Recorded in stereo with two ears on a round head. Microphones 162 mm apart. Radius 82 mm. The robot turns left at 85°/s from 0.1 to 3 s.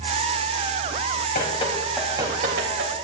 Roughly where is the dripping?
Left.